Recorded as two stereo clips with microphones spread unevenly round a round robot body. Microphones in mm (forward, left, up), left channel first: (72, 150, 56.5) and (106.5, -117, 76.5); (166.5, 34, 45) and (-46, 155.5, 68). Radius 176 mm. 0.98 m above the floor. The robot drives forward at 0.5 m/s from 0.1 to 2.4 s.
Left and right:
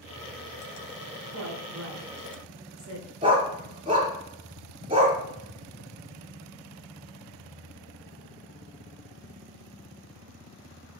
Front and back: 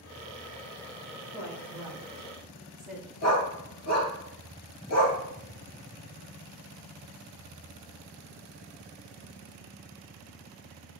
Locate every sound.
1.3 s a woman speaking: 125° right, 3 m; by 3.1 s 130° right, 3.5 m
3.2 s a dog barking: 20° right, 3.5 m